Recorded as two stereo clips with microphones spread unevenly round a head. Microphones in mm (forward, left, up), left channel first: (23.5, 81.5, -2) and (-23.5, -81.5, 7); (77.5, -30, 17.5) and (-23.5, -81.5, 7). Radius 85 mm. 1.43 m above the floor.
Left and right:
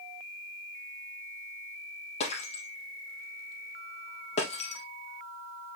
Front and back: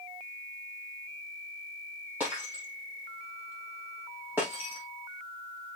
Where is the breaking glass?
125° left, 2.5 m.